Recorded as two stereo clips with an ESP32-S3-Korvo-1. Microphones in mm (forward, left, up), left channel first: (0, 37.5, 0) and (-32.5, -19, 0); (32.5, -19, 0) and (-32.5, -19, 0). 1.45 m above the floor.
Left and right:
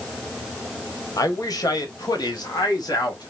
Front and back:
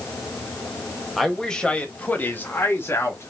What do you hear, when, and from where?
1.2 s a man speaking: 90° left, 1.2 m; by 3.3 s 45° left, 1.9 m